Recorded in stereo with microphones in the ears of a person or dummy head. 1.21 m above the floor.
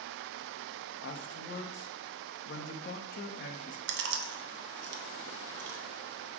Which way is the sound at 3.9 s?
60° right (ahead or behind).